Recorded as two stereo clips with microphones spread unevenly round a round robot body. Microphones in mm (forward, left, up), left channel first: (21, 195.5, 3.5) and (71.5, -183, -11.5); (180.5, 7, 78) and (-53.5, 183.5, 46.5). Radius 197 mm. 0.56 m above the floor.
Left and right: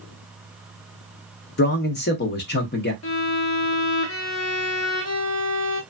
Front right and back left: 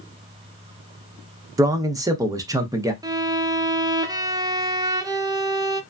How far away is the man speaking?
About 0.6 m.